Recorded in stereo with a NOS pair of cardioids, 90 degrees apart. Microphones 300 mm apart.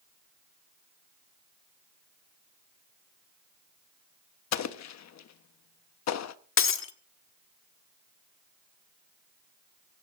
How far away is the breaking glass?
About 1.5 m.